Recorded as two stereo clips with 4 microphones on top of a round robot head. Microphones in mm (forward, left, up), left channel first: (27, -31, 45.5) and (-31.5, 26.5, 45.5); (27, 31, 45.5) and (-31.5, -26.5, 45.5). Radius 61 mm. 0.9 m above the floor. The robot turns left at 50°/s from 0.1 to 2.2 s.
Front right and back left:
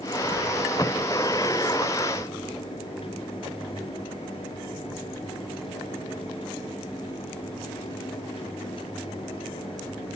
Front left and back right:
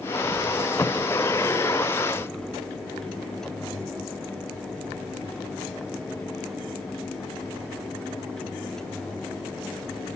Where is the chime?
I don't hear a chime.